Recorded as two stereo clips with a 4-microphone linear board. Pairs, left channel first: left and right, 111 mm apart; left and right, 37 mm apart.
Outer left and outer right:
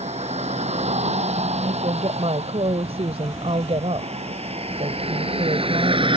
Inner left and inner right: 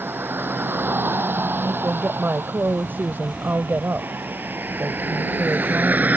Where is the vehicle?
80° right; by 6.2 s 50° right (ahead or behind).